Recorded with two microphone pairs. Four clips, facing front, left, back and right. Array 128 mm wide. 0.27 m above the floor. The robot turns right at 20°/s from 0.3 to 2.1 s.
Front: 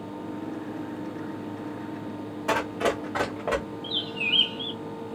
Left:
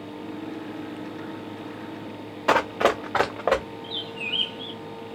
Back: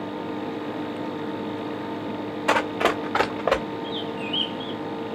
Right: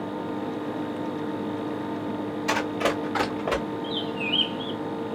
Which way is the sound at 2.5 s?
110° left.